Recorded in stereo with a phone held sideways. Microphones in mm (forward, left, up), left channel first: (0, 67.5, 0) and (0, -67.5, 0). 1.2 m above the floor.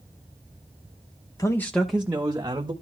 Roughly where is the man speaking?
Left.